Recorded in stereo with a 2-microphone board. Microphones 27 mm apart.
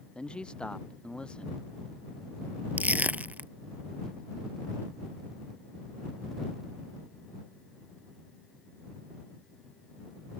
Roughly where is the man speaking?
Left.